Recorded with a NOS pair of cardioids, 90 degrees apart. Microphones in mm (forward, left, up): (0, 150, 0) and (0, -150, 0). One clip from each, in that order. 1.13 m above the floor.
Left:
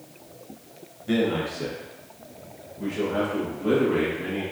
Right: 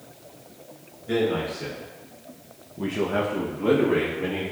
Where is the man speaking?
40° left, 1.1 m; by 4.4 s 80° right, 1.3 m.